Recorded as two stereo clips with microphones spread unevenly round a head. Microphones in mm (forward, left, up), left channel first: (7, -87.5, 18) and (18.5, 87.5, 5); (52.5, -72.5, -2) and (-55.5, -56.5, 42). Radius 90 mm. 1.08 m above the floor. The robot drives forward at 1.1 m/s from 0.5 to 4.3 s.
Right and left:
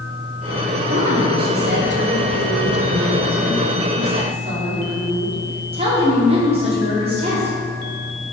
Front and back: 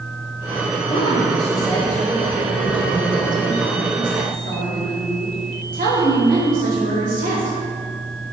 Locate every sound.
0.9 s a woman speaking: 40° left, 2.5 m; by 7.5 s 145° left, 2.5 m